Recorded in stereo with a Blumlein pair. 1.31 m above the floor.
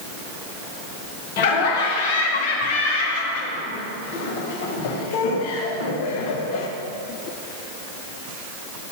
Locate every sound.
1.4 s laughter: 50° left, 1.0 m